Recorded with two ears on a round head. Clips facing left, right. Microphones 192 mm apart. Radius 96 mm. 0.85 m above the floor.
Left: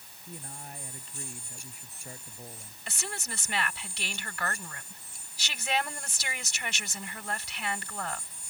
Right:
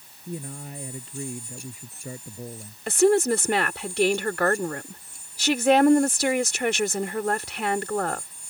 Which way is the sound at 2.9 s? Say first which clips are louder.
Right 23 dB; 45° right (ahead or behind).